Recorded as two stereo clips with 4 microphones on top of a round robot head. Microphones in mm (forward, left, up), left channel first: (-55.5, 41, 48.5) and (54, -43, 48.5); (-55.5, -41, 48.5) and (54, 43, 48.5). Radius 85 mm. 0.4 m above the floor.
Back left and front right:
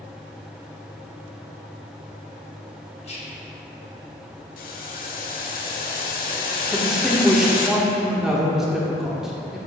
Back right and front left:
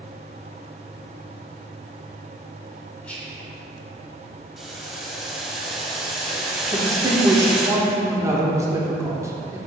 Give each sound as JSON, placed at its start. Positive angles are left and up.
{"t": 3.0, "sound": "whispering", "azimuth_deg": 140, "distance_m": 1.1}
{"t": 4.6, "sound": "boiling", "azimuth_deg": 125, "distance_m": 0.6}
{"t": 6.7, "sound": "a man speaking", "azimuth_deg": 45, "distance_m": 0.7}